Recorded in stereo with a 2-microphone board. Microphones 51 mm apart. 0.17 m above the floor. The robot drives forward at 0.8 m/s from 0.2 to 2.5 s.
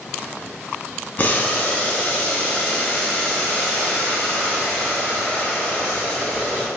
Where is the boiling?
35° left (ahead or behind), 0.7 m; by 6.7 s 15° left (ahead or behind), 1.5 m.